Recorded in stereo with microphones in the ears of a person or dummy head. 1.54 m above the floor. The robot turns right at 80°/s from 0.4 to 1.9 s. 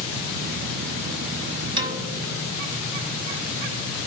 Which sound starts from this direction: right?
A piano, at 1.8 s.